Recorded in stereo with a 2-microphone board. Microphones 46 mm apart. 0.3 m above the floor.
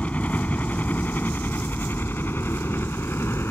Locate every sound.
0.0 s a helicopter: 30° left (ahead or behind); by 3.5 s 60° left (ahead or behind)